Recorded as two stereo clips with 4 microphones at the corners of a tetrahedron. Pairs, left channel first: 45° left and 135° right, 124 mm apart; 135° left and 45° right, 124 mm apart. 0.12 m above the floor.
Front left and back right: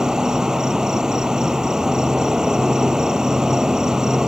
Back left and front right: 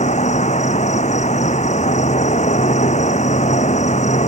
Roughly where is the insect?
Behind left.